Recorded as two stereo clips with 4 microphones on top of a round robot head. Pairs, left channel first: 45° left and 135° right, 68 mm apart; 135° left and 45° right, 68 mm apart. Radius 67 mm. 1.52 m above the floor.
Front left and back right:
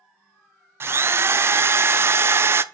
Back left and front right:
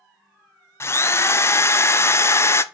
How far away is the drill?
About 0.6 m.